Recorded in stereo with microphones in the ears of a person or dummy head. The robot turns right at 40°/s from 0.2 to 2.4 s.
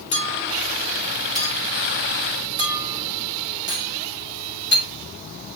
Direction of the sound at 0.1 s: 30° left (ahead or behind).